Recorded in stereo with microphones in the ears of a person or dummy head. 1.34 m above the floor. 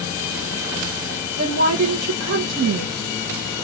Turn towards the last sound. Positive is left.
turn(degrees=-55)  # may be behind; listen again after turning